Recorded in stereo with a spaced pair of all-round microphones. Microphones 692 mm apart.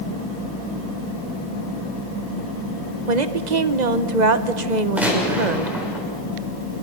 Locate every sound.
3.1 s a woman speaking: 80° right, 1.1 m
5.0 s a gunshot: centre (ahead or behind), 6 m